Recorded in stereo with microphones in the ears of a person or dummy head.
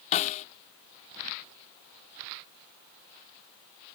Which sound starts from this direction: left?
A snare drum, at 0.1 s.